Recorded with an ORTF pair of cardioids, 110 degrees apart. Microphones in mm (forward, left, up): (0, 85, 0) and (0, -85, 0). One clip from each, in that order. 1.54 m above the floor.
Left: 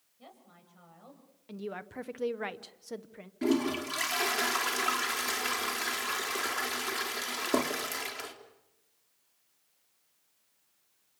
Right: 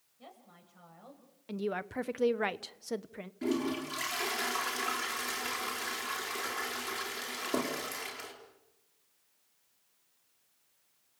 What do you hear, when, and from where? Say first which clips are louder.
0.2 s a woman speaking: right 1 dB; 5° right, 8.5 m
1.5 s a woman speaking: right 5 dB; 25° right, 0.8 m
3.4 s a toilet flushing: left 4 dB; 30° left, 4.5 m